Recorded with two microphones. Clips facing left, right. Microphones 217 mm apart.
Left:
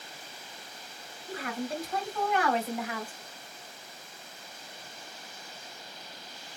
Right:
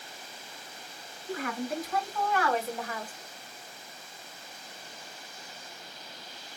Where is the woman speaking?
35° left (ahead or behind), 2.5 m; by 3.1 s 5° left (ahead or behind), 2.0 m.